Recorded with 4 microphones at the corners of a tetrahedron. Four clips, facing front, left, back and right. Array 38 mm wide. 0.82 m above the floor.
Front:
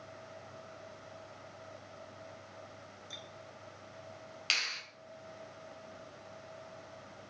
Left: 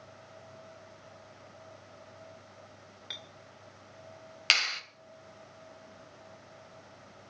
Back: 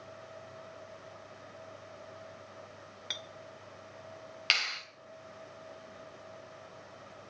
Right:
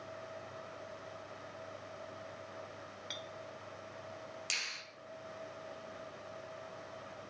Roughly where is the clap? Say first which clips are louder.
Left 12 dB, back 3 dB; behind left.